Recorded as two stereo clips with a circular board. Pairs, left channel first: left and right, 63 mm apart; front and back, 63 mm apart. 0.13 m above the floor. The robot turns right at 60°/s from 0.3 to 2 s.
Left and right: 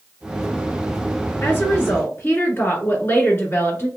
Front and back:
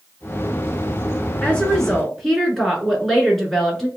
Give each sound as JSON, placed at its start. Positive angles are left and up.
{"t": 1.4, "sound": "a woman speaking", "azimuth_deg": 55, "distance_m": 1.6}